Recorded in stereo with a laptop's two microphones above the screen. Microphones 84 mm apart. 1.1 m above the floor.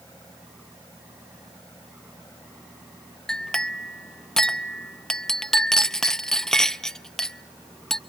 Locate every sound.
3.3 s a clink: 5° left (ahead or behind), 0.6 m